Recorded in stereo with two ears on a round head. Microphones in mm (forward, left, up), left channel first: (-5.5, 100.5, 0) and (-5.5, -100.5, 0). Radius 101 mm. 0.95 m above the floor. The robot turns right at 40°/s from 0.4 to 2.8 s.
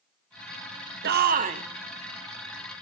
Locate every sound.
1.0 s a shout: 50° right (ahead or behind), 0.6 m; by 1.6 s 25° right (ahead or behind), 0.6 m